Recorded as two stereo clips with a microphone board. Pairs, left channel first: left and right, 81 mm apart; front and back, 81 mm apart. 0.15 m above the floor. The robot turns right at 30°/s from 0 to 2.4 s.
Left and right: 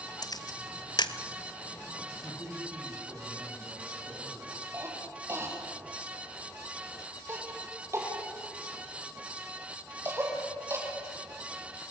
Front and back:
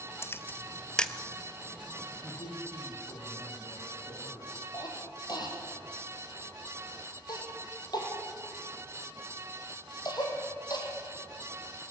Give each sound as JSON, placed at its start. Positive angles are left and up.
{"t": 0.2, "sound": "a camera shutter", "azimuth_deg": 55, "distance_m": 1.0}
{"t": 2.1, "sound": "a man speaking", "azimuth_deg": -30, "distance_m": 8.0}
{"t": 4.7, "sound": "a cough", "azimuth_deg": -35, "distance_m": 5.5}